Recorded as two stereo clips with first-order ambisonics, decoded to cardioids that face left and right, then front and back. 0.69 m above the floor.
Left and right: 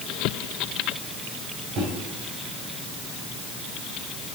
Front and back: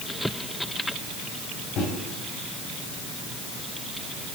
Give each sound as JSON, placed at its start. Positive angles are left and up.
{"t": 1.8, "sound": "a microwave", "azimuth_deg": -40, "distance_m": 3.0}